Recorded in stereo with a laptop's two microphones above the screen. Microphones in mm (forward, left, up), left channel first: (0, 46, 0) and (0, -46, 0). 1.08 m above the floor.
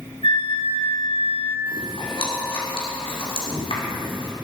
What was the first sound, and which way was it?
A flute, 65° left (ahead or behind).